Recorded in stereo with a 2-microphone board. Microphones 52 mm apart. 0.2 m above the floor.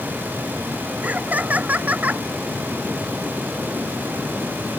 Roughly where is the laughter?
Right.